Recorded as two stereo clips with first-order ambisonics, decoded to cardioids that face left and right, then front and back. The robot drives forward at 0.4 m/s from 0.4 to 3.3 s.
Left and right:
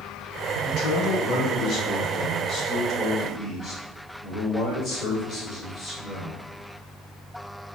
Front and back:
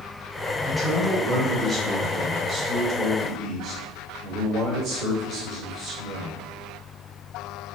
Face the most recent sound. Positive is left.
turn(degrees=145)